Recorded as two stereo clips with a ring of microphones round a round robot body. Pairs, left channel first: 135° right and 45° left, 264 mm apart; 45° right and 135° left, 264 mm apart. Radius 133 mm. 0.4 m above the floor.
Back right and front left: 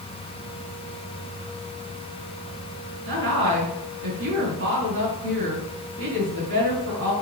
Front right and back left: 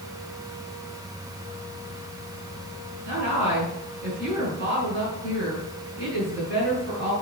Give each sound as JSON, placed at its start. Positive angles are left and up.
{"t": 3.0, "sound": "a woman speaking", "azimuth_deg": 85, "distance_m": 5.5}